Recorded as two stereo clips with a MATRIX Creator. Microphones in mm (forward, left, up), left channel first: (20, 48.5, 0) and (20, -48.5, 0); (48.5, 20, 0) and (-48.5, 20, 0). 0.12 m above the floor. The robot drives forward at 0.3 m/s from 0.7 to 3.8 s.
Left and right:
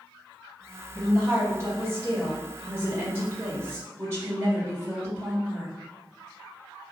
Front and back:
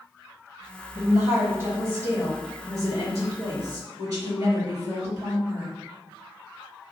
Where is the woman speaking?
130° right, 2.0 m; by 5.7 s 150° right, 2.5 m.